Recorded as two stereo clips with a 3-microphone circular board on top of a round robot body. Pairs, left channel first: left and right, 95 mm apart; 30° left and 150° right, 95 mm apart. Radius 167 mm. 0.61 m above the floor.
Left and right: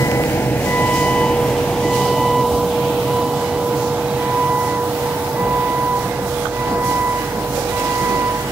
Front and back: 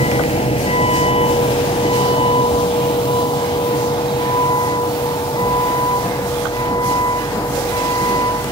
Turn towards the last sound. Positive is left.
turn(degrees=-20)